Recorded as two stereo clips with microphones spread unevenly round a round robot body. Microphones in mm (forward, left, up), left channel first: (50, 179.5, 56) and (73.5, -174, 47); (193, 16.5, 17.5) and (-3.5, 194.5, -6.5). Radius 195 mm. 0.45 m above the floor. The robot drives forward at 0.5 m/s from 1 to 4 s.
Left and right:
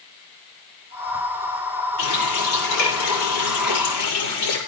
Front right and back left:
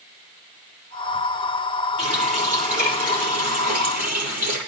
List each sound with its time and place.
2.0 s a running tap: 75° left, 9.5 m; by 4.6 s 80° left, 9 m